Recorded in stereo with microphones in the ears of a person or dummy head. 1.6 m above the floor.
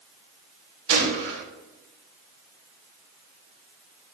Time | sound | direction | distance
0.9 | a gunshot | 75° right (ahead or behind) | 3 m